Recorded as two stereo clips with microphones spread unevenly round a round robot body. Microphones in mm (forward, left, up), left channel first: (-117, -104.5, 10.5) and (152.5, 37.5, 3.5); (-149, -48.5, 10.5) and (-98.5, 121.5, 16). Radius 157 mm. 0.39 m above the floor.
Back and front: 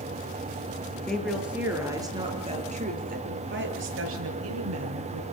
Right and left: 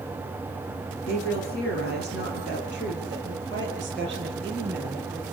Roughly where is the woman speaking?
Ahead right.